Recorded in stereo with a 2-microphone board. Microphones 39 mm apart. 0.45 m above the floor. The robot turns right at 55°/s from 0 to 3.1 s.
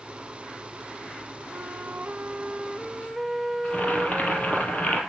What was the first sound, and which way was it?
A flute, 85° right.